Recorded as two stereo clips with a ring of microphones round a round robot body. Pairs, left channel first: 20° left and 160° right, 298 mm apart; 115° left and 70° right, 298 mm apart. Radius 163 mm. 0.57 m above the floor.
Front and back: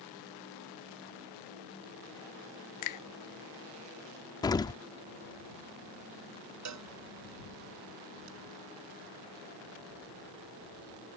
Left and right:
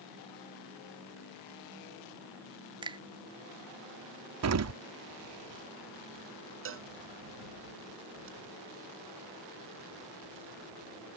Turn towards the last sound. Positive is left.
turn(degrees=-120)